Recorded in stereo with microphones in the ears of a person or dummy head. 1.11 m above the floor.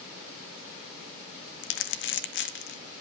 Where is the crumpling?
55° left (ahead or behind), 1.0 m.